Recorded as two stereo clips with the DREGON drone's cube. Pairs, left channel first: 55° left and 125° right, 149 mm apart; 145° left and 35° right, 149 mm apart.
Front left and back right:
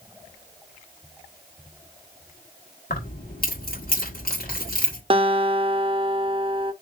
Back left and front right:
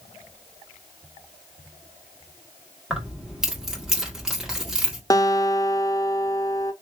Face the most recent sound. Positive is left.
turn(degrees=-155)